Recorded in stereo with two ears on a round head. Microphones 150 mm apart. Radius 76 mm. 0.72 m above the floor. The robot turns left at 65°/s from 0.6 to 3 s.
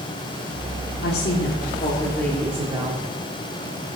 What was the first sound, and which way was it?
A woman speaking, 90° left.